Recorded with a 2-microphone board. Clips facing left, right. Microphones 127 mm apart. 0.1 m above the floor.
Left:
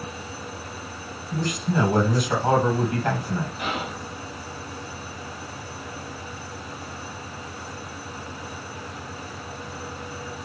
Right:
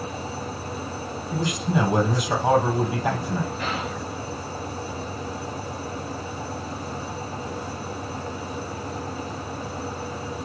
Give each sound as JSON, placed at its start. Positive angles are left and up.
{"t": 1.3, "sound": "a man speaking", "side_deg": -15, "distance_m": 2.5}
{"t": 3.6, "sound": "whispering", "side_deg": 10, "distance_m": 1.4}